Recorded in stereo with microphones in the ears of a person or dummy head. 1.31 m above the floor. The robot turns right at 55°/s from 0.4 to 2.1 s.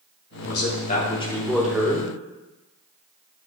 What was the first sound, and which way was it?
A man speaking, 115° left.